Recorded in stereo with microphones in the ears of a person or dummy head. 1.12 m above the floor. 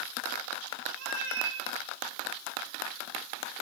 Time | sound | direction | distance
1.0 | a cat meowing | 75° right (ahead or behind) | 1.9 m